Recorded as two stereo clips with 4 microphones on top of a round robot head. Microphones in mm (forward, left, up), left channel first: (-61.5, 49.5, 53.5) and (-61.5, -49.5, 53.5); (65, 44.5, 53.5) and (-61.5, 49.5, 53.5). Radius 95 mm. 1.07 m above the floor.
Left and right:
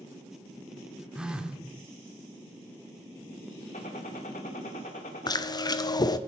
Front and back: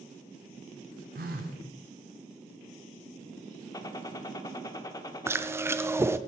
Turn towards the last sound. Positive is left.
turn(degrees=115)